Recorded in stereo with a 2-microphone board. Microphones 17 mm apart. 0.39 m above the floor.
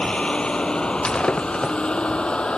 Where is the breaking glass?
60° left (ahead or behind).